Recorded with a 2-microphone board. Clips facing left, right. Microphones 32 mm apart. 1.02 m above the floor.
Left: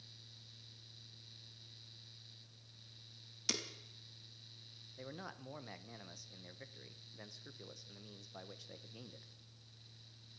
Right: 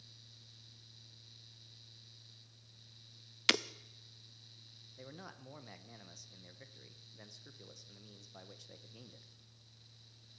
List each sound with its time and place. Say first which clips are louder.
3.5 s breaking glass: right 11 dB; 55° right (ahead or behind), 0.6 m
5.0 s a man speaking: left 3 dB; 10° left (ahead or behind), 0.8 m